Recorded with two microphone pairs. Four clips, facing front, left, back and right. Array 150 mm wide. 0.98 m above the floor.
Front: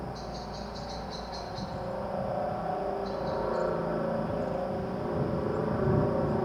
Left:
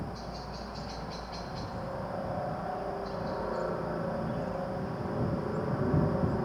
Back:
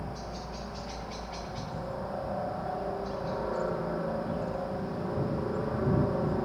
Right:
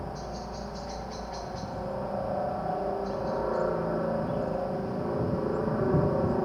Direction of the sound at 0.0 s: 70° right.